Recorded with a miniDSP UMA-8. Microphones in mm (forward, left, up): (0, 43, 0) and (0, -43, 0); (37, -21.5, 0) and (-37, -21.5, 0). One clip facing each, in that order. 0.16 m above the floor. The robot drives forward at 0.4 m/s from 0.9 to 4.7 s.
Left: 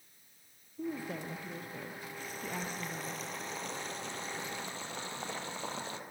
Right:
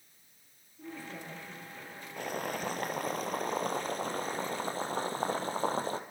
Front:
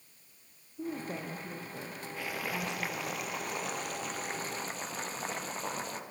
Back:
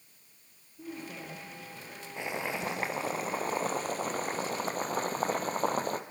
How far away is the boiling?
About 1.9 m.